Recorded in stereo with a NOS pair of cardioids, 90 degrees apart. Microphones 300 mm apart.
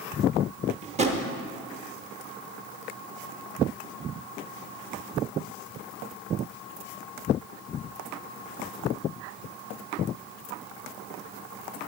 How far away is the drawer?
About 0.8 m.